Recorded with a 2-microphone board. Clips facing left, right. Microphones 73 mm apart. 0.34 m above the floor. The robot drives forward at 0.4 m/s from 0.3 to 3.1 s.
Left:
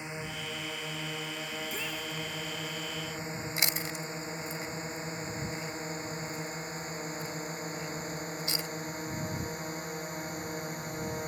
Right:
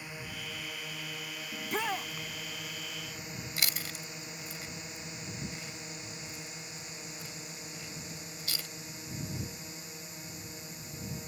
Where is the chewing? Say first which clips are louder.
Left 2 dB; 25° left (ahead or behind).